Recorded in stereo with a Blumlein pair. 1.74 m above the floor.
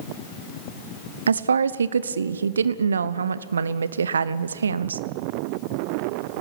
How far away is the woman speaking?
About 0.9 m.